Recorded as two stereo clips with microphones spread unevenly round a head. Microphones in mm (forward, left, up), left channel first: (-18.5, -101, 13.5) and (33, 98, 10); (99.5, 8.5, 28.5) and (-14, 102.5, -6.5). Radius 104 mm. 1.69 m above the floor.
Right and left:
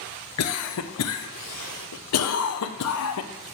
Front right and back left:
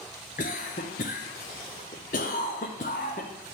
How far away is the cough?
About 0.7 m.